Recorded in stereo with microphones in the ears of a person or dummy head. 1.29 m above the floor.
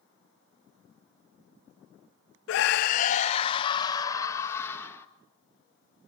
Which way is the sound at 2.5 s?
75° left (ahead or behind).